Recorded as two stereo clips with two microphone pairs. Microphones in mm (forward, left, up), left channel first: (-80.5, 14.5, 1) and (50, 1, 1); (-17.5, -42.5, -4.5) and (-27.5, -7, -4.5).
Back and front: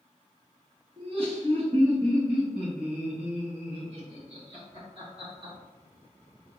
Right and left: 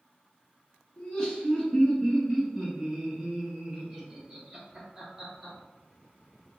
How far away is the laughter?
About 1.5 m.